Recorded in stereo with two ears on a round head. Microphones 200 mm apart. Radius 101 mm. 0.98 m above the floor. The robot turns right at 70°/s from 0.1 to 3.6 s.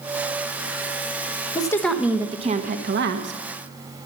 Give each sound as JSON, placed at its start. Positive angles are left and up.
{"t": 1.6, "sound": "a woman speaking", "azimuth_deg": 155, "distance_m": 1.1}